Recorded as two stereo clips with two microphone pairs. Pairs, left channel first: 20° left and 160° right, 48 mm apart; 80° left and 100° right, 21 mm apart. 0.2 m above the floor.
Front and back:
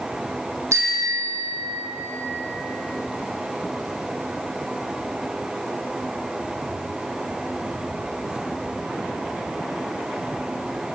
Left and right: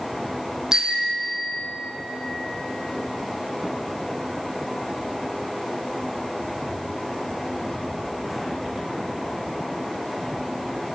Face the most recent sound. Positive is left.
turn(degrees=-160)